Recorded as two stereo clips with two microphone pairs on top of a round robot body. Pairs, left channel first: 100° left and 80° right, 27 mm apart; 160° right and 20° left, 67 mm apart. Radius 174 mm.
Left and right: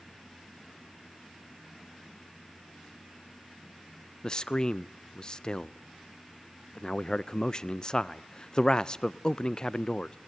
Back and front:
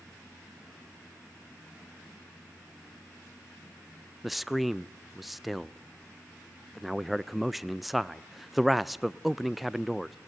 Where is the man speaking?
150° left, 0.5 m.